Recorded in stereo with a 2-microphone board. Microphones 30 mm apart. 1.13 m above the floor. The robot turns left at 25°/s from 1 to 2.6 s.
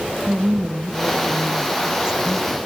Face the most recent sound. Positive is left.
turn(degrees=-175)